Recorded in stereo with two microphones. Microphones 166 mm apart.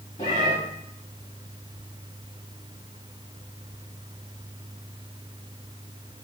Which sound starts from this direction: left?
A cat meowing, at 0.2 s.